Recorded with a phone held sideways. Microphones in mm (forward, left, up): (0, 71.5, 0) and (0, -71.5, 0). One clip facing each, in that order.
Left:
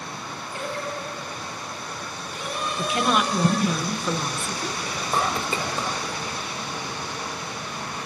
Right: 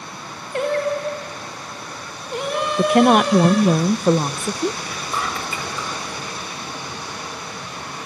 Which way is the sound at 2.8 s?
50° right (ahead or behind).